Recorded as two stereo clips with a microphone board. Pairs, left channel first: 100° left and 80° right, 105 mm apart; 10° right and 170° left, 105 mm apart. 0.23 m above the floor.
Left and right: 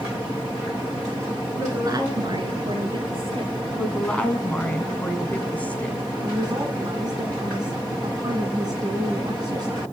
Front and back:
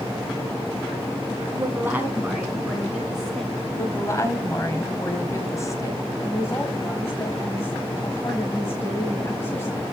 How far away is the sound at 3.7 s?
About 1.7 m.